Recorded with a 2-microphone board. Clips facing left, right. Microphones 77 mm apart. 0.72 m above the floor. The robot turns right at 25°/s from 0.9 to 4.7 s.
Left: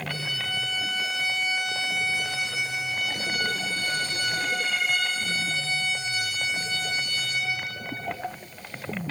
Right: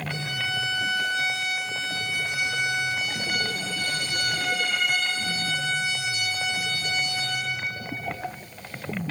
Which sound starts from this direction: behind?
A violin, at 0.1 s.